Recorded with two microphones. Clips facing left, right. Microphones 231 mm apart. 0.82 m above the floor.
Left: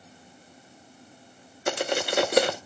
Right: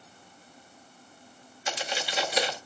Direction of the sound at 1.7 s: 55° left (ahead or behind).